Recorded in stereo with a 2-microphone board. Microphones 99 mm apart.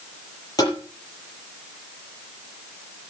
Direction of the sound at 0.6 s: 40° left (ahead or behind).